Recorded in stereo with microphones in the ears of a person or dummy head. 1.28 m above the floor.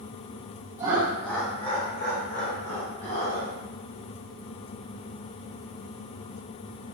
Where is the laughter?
20° right (ahead or behind), 0.7 m; by 3.5 s 65° left (ahead or behind), 1.3 m.